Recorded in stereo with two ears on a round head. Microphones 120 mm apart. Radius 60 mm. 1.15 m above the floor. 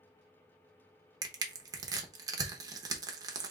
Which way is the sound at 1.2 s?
30° right (ahead or behind).